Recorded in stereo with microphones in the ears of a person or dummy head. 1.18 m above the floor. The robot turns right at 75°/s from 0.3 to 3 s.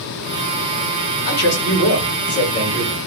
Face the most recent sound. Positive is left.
turn(degrees=175)